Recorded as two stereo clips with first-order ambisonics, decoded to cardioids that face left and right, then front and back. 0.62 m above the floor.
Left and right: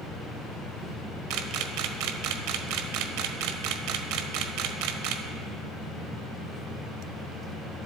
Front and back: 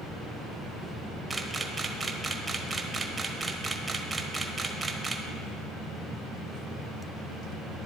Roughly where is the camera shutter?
Right.